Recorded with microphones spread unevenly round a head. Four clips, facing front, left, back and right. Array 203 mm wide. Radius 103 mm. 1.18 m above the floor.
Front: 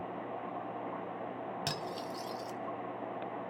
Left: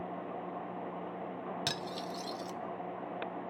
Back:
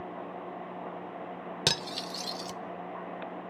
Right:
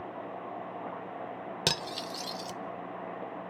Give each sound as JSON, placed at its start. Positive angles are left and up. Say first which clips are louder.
{"t": 1.7, "sound": "cutlery clinking", "louder": "right 3 dB, back 3 dB", "azimuth_deg": -140, "distance_m": 0.5}